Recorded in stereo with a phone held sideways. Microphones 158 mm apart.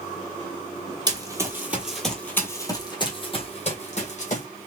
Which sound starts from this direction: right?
Running footsteps, at 1.1 s.